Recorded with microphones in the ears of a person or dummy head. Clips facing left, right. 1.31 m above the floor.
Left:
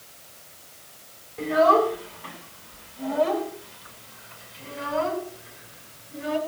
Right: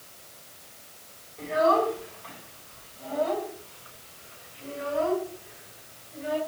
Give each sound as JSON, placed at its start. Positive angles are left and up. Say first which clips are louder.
{"t": 1.4, "sound": "a child speaking", "louder": "left 4 dB", "side_deg": 65, "distance_m": 8.0}